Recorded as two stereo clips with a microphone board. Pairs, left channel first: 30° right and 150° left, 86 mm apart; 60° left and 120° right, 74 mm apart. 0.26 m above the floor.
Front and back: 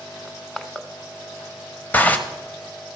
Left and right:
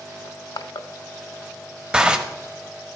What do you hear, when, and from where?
0.2 s crushing: 50° left, 0.6 m
1.9 s a zipper: 65° right, 1.0 m